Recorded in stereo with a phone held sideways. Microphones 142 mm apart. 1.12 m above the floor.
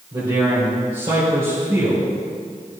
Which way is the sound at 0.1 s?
35° right (ahead or behind).